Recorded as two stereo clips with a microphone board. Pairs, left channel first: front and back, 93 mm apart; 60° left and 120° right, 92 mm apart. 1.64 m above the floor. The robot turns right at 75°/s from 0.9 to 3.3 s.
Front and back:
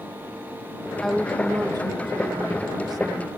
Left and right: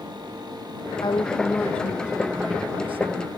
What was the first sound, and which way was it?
A woman speaking, 80° left.